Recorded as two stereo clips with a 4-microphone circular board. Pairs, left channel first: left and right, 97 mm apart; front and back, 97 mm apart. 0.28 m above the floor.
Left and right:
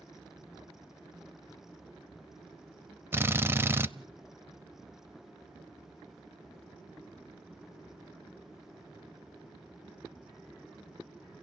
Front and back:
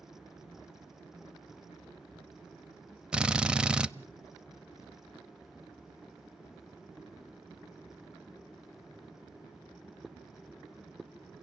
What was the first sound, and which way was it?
A drill, 115° right.